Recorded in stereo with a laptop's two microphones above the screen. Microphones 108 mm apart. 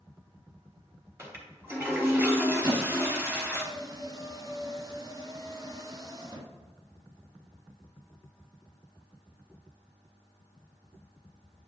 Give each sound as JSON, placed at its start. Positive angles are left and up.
{"t": 1.2, "sound": "a toilet flushing", "side_deg": -25, "distance_m": 2.5}
{"t": 2.6, "sound": "a squeak", "side_deg": -40, "distance_m": 1.5}